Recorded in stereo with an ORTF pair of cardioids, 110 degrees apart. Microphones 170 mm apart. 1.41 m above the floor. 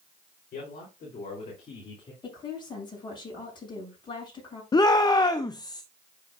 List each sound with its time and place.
0.5 s a man speaking: 55° left, 3.5 m; by 2.1 s 30° left, 2.5 m
2.2 s a woman speaking: 25° left, 6.5 m
4.7 s a shout: 25° left, 0.6 m